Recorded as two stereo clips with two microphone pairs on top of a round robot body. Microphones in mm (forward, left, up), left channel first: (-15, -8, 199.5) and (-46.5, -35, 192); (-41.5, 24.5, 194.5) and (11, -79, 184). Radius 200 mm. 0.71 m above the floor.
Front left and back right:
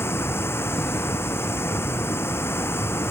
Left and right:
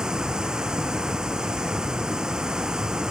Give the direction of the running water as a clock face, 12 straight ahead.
11 o'clock.